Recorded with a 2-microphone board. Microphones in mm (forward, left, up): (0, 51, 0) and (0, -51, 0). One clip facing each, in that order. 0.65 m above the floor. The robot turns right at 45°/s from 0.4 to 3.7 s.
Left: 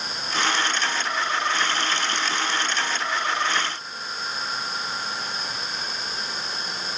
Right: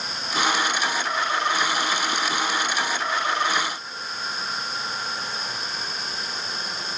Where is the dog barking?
No dog barking in this recording.